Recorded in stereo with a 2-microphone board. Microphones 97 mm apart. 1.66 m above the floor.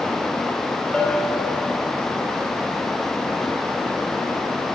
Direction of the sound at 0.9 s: 10° left (ahead or behind).